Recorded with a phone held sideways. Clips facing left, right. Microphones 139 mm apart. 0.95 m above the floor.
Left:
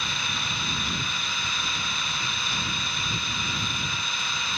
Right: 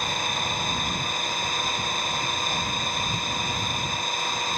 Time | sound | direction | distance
0.0 | an engine running | 50° right (ahead or behind) | ?